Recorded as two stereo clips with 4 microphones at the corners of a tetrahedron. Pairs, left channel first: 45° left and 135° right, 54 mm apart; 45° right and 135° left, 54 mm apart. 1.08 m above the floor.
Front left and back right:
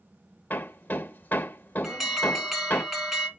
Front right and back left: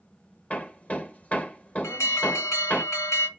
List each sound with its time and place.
0.5 s hammering: 5° left, 1.0 m
1.8 s an alarm: 55° right, 3.5 m